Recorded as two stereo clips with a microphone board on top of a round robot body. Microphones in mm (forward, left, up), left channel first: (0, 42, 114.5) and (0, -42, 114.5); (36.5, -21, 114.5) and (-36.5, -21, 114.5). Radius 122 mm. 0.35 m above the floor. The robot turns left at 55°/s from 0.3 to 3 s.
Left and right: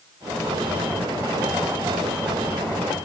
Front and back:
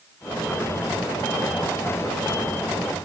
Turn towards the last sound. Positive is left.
No sound to turn to.